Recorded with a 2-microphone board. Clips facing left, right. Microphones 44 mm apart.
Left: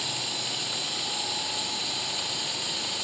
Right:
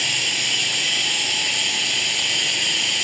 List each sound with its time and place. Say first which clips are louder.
0.0 s running water: right 11 dB; 65° right (ahead or behind)